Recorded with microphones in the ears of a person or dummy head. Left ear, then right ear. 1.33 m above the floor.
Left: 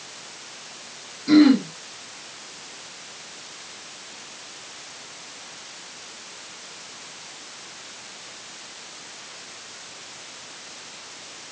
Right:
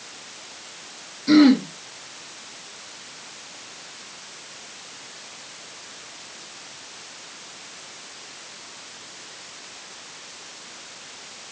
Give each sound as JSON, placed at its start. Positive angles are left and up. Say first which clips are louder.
{"t": 1.3, "sound": "throat clearing", "louder": "even", "side_deg": -25, "distance_m": 2.0}